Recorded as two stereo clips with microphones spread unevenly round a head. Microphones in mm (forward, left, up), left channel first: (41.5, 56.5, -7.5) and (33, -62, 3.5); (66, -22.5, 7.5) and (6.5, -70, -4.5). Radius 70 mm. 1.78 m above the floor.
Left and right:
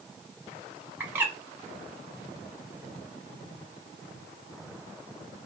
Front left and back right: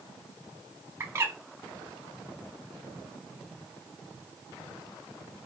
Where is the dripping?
No dripping in this recording.